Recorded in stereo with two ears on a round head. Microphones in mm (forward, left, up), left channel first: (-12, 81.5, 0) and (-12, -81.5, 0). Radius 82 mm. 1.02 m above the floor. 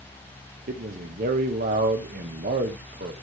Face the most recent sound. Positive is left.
turn(degrees=-50)  # may be behind; listen again after turning